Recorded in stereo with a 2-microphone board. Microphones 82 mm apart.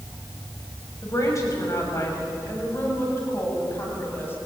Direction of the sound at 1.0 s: 40° left (ahead or behind).